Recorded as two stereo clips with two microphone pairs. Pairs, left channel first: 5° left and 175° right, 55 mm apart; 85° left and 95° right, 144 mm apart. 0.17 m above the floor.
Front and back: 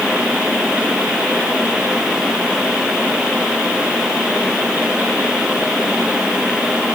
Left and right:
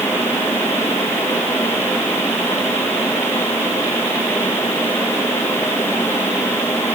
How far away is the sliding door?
No sliding door in this recording.